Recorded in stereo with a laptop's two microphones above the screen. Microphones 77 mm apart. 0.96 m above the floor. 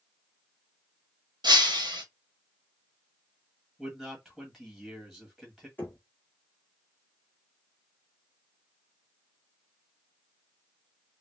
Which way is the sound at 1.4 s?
65° right (ahead or behind).